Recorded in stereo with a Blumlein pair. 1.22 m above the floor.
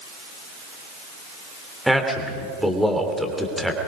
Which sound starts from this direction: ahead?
A man speaking, at 1.9 s.